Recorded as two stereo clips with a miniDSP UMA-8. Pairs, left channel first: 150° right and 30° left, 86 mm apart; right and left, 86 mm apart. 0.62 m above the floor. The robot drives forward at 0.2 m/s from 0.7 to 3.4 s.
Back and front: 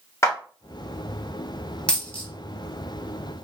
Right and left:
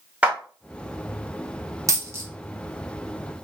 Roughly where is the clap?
Behind.